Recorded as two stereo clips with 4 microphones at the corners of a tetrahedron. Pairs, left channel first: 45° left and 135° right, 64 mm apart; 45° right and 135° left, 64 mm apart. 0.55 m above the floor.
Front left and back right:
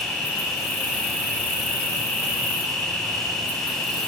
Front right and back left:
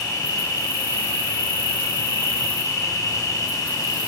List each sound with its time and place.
0.0 s an insect: 40° right, 1.8 m